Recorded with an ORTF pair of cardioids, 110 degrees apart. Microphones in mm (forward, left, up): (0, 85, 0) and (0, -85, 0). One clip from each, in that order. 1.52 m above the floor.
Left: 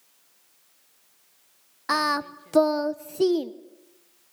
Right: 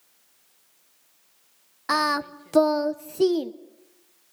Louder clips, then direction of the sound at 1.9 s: Right 1 dB; 5° right.